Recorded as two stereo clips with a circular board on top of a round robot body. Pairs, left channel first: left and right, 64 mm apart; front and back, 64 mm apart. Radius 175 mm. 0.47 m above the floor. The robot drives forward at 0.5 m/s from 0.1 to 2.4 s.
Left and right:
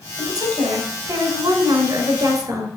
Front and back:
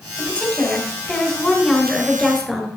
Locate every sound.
0.2 s a woman speaking: 75° right, 3.5 m; by 2.7 s 95° right, 3.5 m